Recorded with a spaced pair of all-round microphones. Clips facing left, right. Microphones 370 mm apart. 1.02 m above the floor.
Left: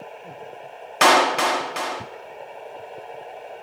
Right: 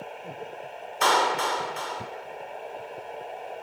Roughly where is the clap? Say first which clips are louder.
Left 7 dB; left.